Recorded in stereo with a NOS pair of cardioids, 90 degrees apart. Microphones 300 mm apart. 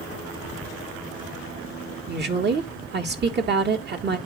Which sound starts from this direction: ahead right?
A woman speaking, at 2.1 s.